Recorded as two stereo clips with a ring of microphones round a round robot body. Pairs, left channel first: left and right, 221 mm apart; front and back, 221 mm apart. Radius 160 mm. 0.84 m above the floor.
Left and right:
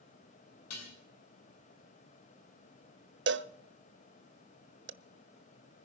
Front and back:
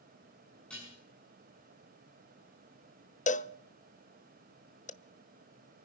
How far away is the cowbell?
About 0.8 m.